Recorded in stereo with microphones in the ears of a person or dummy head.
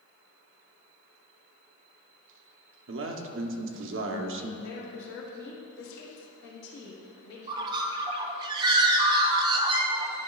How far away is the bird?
About 0.6 m.